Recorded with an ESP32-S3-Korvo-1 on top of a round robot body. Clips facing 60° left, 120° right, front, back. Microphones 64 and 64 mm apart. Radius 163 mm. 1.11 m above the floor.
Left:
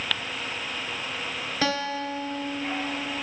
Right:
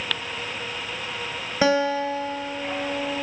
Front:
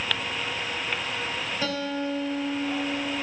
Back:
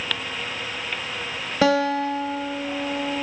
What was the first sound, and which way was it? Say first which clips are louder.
A guitar: right 8 dB, back 12 dB; 165° left.